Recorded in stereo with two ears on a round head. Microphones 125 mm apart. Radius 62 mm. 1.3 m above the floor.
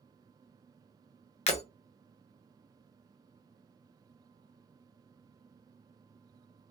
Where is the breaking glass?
50° left (ahead or behind), 0.7 m.